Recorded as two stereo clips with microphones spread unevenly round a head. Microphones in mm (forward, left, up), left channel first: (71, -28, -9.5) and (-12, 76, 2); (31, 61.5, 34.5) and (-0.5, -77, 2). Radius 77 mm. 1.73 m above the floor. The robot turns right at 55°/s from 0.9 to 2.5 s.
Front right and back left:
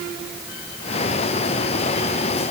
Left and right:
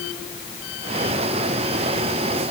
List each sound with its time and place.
Only background noise.